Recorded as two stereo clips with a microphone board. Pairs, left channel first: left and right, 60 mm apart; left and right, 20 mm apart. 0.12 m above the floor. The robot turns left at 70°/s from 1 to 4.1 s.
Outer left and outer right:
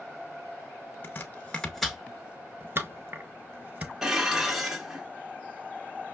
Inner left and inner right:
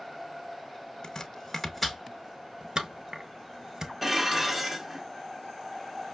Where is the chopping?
30° left (ahead or behind), 0.8 m; by 3.9 s 20° right (ahead or behind), 0.8 m.